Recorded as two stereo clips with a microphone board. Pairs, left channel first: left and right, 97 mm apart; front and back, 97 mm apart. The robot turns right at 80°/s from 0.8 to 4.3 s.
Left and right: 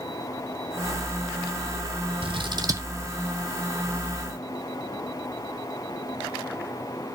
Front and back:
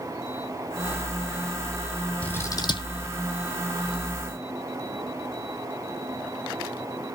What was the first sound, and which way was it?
Scissors, 75° right.